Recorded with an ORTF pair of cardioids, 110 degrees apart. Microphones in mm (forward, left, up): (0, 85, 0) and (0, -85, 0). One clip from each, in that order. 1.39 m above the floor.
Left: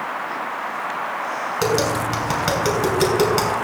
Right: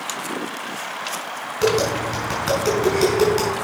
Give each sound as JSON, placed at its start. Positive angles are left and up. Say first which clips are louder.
{"t": 1.6, "sound": "tapping", "louder": "right 2 dB", "azimuth_deg": 25, "distance_m": 5.5}